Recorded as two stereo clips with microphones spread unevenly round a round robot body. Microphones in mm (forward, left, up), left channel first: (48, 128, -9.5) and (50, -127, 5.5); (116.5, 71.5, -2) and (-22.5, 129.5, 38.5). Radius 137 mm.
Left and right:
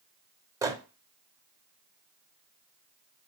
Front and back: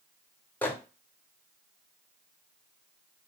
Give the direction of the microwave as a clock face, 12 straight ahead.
1 o'clock.